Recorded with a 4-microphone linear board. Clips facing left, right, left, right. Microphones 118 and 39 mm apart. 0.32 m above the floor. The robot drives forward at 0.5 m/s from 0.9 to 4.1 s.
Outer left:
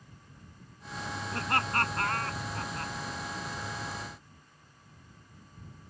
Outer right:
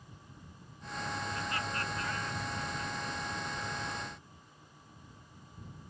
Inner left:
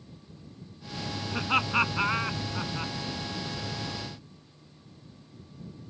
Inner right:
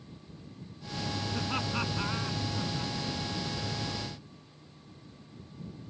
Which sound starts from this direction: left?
Laughter, at 1.3 s.